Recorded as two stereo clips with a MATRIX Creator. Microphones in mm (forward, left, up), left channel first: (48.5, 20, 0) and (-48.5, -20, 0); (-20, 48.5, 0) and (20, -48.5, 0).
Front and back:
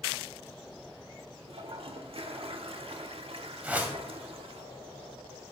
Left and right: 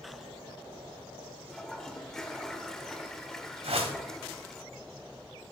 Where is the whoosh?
80° right, 1.9 m.